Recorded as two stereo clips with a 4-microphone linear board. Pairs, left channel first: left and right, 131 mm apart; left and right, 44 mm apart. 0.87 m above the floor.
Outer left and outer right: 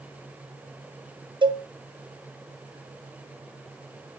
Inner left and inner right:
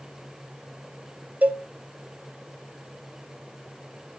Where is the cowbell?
40° right (ahead or behind), 0.7 m.